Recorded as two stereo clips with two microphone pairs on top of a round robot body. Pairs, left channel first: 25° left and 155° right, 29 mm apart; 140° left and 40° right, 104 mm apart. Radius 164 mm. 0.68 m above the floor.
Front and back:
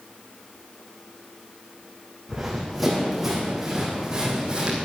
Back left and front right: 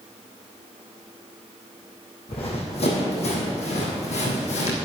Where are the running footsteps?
110° left, 3 m; by 4.7 s 140° left, 2.5 m.